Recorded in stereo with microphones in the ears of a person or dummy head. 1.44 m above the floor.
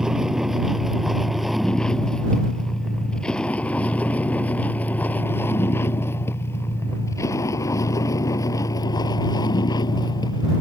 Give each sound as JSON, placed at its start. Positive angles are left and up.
{"t": 0.0, "sound": "a vehicle", "side_deg": 0}